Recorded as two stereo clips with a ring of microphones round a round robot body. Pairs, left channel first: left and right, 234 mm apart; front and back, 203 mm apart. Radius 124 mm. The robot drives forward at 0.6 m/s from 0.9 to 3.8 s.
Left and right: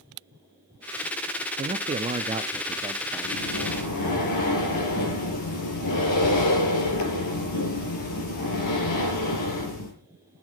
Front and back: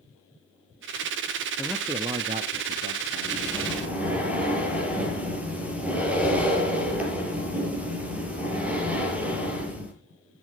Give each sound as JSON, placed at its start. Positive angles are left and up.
{"t": 1.6, "sound": "a man speaking", "azimuth_deg": -75, "distance_m": 0.6}
{"t": 3.2, "sound": "breathing", "azimuth_deg": 95, "distance_m": 5.0}